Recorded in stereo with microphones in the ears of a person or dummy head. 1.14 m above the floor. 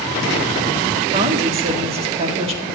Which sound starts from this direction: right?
A woman speaking, at 1.1 s.